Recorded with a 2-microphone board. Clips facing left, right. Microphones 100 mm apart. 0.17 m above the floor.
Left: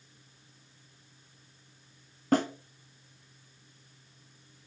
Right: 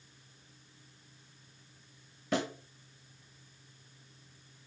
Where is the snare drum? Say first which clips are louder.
Left 7 dB; 45° left (ahead or behind), 1.4 m.